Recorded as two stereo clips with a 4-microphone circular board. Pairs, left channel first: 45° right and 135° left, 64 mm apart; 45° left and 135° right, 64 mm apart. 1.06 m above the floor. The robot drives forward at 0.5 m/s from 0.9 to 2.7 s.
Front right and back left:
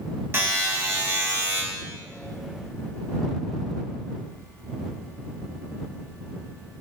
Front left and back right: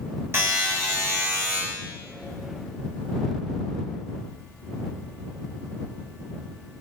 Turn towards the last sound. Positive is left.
turn(degrees=-175)